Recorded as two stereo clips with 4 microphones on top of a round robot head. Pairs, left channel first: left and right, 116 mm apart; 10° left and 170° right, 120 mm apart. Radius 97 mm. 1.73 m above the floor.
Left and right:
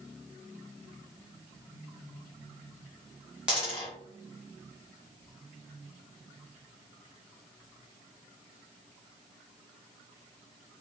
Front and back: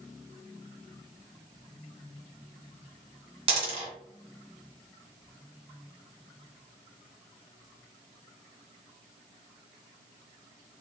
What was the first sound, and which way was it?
A dropped coin, 170° right.